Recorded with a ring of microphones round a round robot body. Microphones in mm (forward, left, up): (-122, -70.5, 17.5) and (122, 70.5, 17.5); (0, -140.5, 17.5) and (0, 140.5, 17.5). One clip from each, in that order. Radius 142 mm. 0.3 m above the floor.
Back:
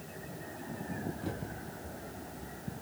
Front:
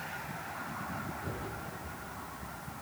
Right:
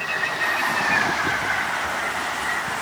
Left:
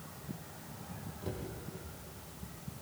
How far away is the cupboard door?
About 7.5 m.